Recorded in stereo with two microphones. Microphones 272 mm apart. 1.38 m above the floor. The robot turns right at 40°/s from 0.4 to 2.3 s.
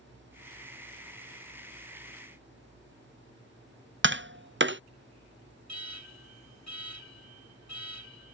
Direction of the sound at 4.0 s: 45° right (ahead or behind).